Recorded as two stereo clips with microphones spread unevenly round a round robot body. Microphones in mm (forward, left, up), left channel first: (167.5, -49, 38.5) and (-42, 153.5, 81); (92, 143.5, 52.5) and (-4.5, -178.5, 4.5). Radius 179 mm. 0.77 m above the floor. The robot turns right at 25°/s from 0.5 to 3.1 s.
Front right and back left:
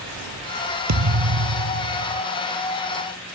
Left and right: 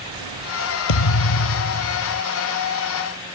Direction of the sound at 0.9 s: 100° left.